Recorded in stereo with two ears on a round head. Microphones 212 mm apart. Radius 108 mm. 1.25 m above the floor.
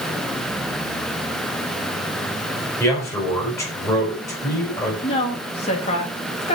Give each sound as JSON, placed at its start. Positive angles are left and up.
{"t": 2.8, "sound": "a man speaking", "side_deg": 15, "distance_m": 4.5}
{"t": 5.0, "sound": "a woman speaking", "side_deg": 25, "distance_m": 2.5}